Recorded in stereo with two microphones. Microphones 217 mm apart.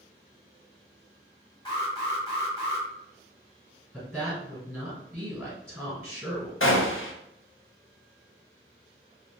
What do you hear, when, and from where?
1.6 s an alarm: 20° left (ahead or behind), 1.9 m
3.9 s a woman speaking: centre (ahead or behind), 1.8 m
6.6 s a gunshot: 70° left (ahead or behind), 0.5 m